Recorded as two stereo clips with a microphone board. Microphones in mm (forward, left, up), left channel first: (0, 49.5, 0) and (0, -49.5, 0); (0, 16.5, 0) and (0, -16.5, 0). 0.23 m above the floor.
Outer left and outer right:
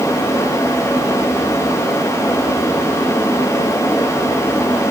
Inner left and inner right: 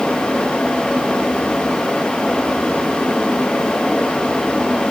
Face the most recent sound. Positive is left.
No sound to turn to.